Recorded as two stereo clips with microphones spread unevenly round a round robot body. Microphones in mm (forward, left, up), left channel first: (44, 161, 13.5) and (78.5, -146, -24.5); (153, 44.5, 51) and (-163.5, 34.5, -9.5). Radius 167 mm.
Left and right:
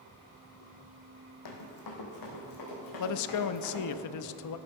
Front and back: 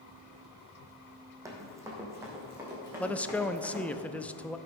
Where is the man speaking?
95° left, 0.5 m.